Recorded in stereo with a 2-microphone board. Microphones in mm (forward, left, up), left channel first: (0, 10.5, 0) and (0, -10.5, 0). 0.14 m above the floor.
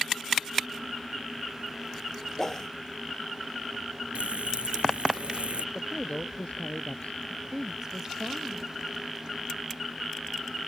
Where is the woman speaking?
30° right (ahead or behind).